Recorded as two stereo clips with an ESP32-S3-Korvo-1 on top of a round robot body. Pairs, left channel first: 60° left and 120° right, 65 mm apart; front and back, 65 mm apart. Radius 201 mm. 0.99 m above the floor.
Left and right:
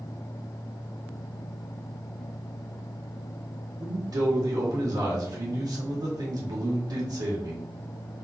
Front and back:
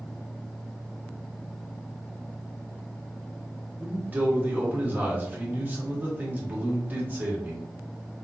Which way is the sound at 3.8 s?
115° right.